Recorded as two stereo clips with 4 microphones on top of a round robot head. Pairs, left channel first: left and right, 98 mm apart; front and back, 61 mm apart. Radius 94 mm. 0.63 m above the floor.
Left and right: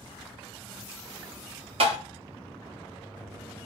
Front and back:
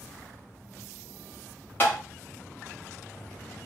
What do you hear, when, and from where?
1.8 s tapping: 65° right, 1.0 m